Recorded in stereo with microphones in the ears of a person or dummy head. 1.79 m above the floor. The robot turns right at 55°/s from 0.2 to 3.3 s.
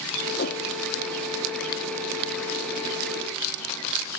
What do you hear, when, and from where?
0.4 s a whoosh: 55° left (ahead or behind); by 0.7 s 40° left (ahead or behind)